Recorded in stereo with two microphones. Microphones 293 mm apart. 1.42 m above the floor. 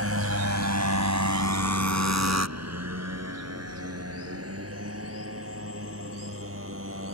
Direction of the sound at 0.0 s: 55° right (ahead or behind).